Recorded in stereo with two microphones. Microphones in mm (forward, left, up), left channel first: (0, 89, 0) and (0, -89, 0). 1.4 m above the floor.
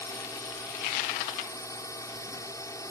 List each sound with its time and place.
0.0 s a drone: 20° left (ahead or behind)